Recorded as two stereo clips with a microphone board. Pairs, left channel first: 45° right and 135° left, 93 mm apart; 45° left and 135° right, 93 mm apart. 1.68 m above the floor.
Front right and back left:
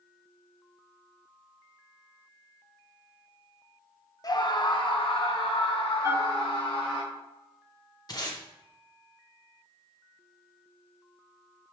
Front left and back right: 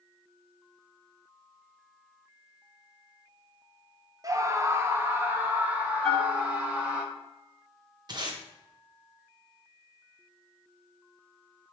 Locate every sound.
4.2 s a scream: 85° right, 0.7 m; by 7.0 s 60° right, 2.5 m
6.0 s a bell: 130° left, 1.7 m
8.1 s tape being pulled: 90° right, 1.4 m